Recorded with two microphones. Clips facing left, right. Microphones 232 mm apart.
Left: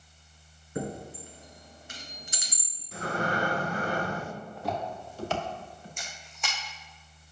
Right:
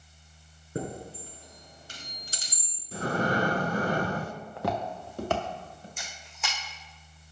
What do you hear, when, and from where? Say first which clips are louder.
0.8 s a chime: left 1 dB; 40° right (ahead or behind), 2 m
2.9 s breathing: right 3 dB; 30° right (ahead or behind), 0.6 m
4.6 s footsteps: right 3 dB; 80° right, 1.3 m; by 5.9 s 45° right (ahead or behind), 3 m
6.0 s a camera shutter: right 1 dB; 5° right (ahead or behind), 3 m